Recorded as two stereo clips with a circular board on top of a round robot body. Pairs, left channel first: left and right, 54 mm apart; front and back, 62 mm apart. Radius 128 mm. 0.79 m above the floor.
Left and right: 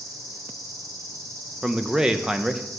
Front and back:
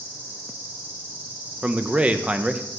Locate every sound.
0.0 s an insect: 115° right, 1.6 m
1.6 s a man speaking: 145° right, 0.7 m